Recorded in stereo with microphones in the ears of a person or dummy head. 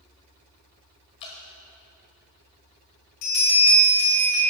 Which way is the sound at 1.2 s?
30° left (ahead or behind).